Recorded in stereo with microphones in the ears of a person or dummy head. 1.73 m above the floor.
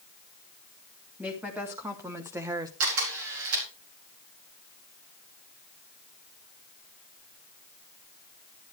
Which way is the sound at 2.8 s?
80° right.